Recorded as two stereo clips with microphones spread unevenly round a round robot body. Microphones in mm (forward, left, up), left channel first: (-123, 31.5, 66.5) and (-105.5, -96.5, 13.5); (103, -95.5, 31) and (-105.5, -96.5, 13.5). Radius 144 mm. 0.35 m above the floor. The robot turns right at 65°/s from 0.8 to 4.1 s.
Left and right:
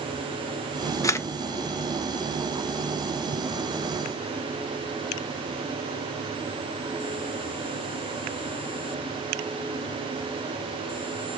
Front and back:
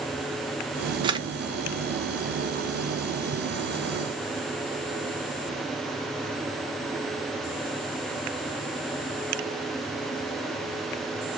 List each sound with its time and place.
1.0 s a camera shutter: 175° right, 0.6 m; by 1.3 s 160° right, 0.6 m